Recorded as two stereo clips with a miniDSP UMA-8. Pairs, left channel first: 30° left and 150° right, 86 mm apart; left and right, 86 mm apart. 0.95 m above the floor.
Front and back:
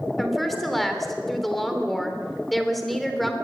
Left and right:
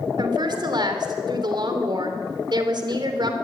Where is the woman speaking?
60° right, 3 m.